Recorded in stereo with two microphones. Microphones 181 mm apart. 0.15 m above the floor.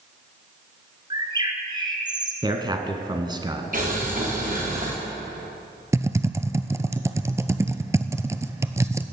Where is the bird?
25° right (ahead or behind), 1.9 m.